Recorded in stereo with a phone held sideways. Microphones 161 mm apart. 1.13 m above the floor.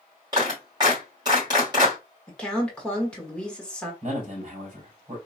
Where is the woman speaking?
5° left (ahead or behind), 1.5 m.